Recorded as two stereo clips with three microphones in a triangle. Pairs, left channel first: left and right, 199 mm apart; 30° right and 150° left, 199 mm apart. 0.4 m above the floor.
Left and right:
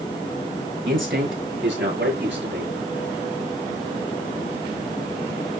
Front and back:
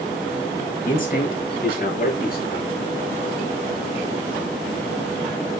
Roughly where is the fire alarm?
No fire alarm in this recording.